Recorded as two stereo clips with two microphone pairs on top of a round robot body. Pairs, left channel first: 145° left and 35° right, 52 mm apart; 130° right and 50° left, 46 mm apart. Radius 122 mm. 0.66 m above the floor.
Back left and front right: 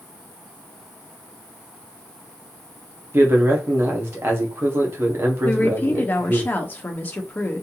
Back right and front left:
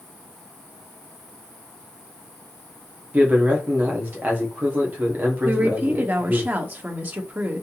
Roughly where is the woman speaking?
Left.